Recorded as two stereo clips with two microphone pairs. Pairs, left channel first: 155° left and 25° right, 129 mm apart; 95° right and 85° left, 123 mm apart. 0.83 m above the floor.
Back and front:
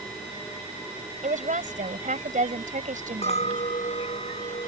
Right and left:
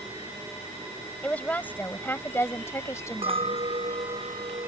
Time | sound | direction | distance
1.2 | a woman speaking | 15° right | ?
3.2 | a clink | 125° left | ?